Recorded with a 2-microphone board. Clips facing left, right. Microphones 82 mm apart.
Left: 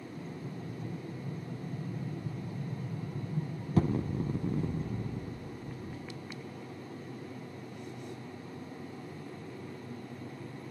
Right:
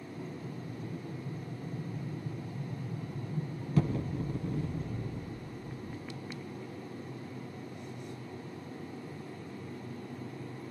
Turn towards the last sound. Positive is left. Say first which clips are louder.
# right 1 dB
turn(degrees=35)  # may be behind; listen again after turning